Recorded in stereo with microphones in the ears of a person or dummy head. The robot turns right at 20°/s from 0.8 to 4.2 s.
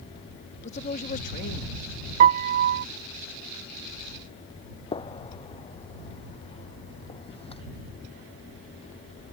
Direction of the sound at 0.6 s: 35° left (ahead or behind).